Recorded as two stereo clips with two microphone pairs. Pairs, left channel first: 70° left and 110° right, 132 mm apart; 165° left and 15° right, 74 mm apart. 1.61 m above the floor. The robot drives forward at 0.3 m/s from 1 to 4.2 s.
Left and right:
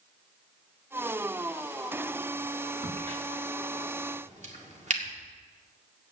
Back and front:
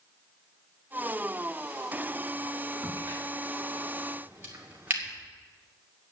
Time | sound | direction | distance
2.8 | a crack | 70° right | 2.5 m